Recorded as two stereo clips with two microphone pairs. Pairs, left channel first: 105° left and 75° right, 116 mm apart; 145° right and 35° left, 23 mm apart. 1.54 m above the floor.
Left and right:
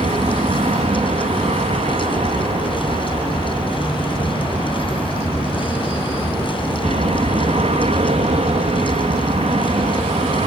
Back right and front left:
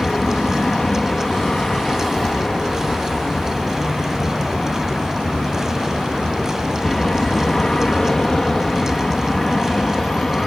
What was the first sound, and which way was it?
An aircraft, 80° right.